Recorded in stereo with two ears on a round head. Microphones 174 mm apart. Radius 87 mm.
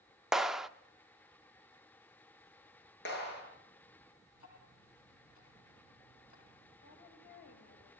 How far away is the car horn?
I don't hear a car horn.